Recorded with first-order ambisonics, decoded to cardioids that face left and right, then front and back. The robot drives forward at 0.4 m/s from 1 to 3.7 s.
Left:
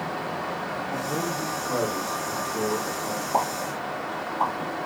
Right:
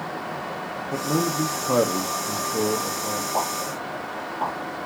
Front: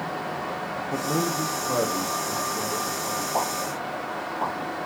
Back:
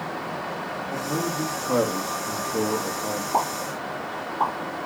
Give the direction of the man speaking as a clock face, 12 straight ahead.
2 o'clock.